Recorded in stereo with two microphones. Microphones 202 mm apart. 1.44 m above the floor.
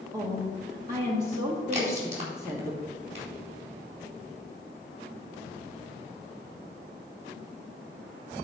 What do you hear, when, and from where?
0.1 s a woman speaking: 20° right (ahead or behind), 2.0 m
1.7 s a crack: 35° right (ahead or behind), 3.5 m